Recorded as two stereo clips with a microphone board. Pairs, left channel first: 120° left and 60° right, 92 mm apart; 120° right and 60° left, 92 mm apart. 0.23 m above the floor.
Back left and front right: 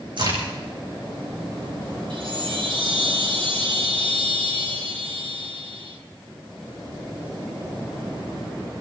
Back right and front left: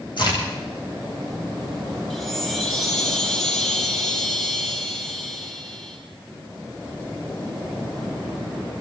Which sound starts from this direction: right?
A crack, at 0.2 s.